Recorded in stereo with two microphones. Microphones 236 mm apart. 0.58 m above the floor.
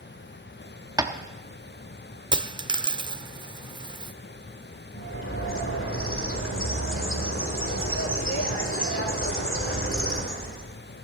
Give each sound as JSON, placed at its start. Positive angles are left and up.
{"t": 1.0, "sound": "tapping", "side_deg": -15, "distance_m": 0.8}
{"t": 2.3, "sound": "a dropped coin", "side_deg": -20, "distance_m": 0.5}
{"t": 4.9, "sound": "a bird", "side_deg": 60, "distance_m": 1.6}